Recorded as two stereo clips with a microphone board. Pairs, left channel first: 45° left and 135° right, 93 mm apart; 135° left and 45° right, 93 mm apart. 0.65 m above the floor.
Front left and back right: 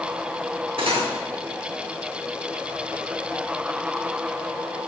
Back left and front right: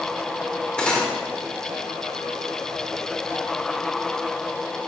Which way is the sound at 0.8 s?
145° right.